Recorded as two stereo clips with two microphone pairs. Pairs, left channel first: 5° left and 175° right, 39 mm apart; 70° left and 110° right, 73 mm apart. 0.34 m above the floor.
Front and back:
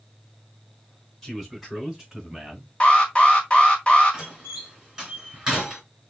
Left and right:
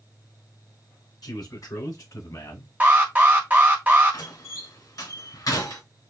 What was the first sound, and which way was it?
A man speaking, 90° left.